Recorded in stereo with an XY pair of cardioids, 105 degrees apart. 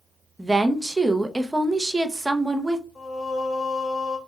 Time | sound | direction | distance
0.4 | a woman speaking | 15° right | 0.6 m
3.0 | singing | 25° left | 1.7 m